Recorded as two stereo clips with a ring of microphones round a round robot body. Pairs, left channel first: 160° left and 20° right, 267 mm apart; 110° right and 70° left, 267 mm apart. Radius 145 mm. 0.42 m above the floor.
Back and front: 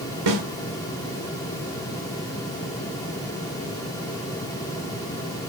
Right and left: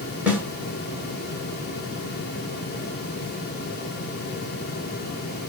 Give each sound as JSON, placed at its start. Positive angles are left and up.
{"t": 0.3, "sound": "a snare drum", "azimuth_deg": -15, "distance_m": 5.5}